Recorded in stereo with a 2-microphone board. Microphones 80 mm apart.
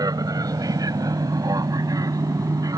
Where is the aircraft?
50° right (ahead or behind); by 2.8 s 45° right (ahead or behind).